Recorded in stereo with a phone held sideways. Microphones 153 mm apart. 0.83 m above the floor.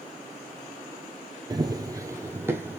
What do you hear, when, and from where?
1.5 s running footsteps: 25° right (ahead or behind), 0.9 m; by 2.8 s 15° right (ahead or behind), 1.6 m